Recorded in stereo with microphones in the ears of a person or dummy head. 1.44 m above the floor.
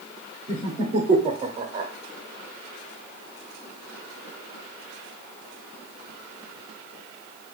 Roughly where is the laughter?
Right.